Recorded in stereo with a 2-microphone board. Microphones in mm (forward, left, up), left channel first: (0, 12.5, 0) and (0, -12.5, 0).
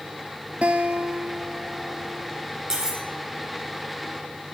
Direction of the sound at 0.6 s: 50° right (ahead or behind).